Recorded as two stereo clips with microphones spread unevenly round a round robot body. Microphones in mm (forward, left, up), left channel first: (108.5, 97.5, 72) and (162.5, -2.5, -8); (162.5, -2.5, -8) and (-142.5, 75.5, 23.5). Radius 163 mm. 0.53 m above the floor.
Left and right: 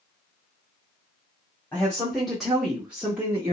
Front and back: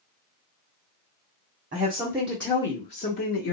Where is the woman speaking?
130° right, 0.9 m; by 3.5 s 40° right, 1.1 m.